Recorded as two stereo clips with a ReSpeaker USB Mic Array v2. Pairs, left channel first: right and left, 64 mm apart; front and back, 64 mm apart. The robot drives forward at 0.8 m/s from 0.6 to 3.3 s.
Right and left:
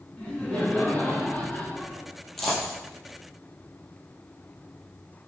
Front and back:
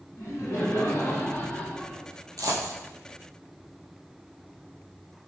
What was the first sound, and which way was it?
Laughter, 20° right.